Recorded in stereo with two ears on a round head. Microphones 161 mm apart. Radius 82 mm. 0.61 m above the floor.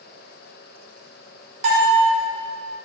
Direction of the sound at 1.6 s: 45° right (ahead or behind).